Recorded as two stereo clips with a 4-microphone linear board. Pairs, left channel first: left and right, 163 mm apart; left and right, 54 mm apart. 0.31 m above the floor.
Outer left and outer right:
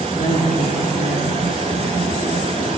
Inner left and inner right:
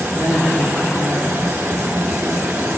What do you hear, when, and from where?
0.2 s a woman speaking: 60° left (ahead or behind), 7 m